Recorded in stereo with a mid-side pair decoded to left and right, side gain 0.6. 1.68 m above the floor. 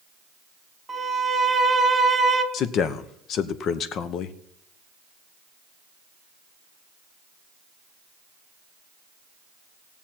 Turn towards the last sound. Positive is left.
turn(degrees=55)